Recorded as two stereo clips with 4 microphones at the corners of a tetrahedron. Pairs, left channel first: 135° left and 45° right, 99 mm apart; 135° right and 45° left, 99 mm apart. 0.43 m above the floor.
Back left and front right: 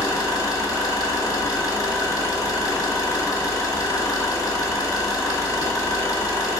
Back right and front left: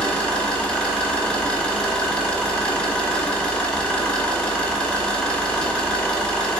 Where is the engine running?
150° left, 1.0 m.